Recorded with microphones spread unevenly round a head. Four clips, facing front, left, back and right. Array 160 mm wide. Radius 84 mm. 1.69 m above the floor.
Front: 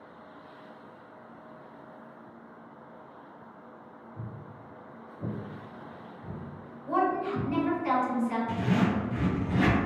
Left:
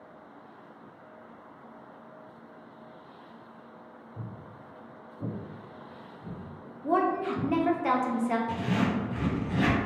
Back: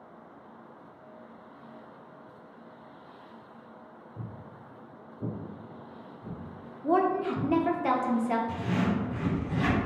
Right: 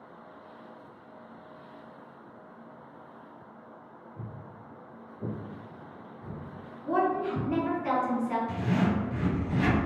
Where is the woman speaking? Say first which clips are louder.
Left 1 dB, back 2 dB; 150° left, 0.6 m.